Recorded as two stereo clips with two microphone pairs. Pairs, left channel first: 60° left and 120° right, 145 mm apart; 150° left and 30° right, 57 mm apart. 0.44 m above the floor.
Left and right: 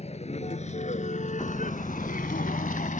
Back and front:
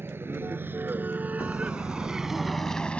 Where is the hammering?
120° left.